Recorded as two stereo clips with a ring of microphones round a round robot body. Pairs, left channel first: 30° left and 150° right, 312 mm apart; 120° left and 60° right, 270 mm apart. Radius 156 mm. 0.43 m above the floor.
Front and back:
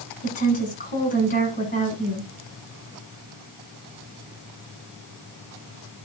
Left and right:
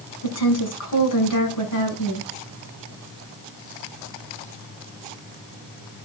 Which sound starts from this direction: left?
A woman speaking, at 0.2 s.